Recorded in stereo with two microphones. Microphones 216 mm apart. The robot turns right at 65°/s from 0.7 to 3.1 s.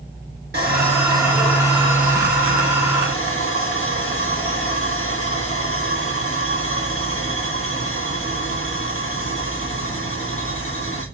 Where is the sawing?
50° right, 3 m; by 11.1 s 105° left, 3 m.